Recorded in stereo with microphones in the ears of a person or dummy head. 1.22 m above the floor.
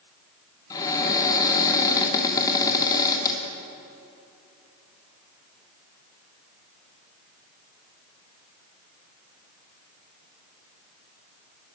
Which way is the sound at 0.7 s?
25° left (ahead or behind).